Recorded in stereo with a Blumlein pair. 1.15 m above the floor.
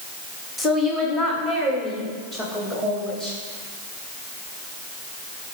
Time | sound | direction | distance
0.6 | a woman speaking | 15° left | 1.3 m